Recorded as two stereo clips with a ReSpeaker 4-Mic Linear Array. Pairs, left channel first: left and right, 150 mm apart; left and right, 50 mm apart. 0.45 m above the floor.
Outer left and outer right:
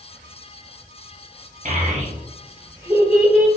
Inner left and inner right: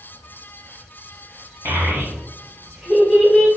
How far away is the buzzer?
I don't hear a buzzer.